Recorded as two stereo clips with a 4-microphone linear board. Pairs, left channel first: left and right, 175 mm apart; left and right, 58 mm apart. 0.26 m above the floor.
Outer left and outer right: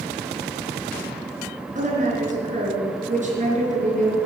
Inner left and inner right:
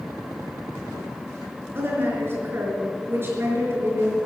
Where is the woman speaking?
40° right (ahead or behind), 4.5 m.